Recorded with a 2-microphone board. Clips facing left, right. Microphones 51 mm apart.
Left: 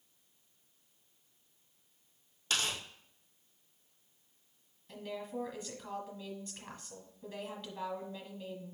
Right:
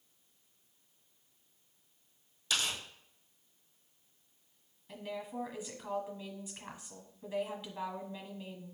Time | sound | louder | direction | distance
2.5 | tearing paper | even | 40° left (ahead or behind) | 2 m
4.9 | a woman speaking | even | 5° right (ahead or behind) | 1.3 m